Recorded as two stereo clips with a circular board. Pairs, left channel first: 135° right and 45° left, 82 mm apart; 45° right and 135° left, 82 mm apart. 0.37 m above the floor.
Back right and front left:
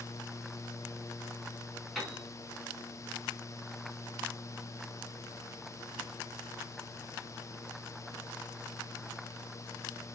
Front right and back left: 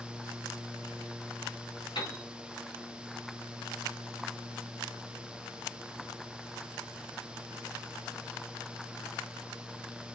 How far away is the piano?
About 4.5 m.